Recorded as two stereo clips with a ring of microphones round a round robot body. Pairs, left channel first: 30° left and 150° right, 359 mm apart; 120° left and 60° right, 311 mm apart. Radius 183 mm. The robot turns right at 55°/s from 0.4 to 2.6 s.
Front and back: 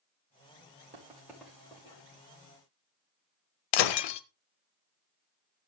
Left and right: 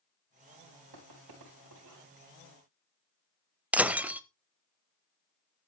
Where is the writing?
85° right, 6 m; by 2.0 s 25° right, 6 m.